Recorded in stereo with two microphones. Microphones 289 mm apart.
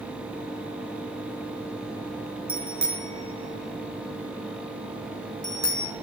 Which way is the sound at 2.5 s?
65° right (ahead or behind).